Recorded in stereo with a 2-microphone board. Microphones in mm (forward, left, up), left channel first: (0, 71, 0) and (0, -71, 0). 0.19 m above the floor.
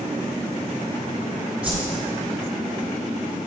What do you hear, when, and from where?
1.6 s a whoosh: 10° right (ahead or behind), 3 m